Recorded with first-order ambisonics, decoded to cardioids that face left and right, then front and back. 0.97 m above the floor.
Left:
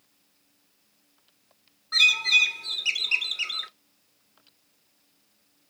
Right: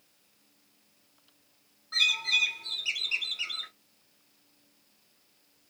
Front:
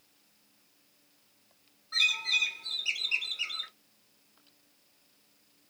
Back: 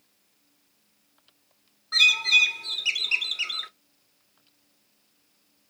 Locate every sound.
1.9 s a bird: 145° left, 0.5 m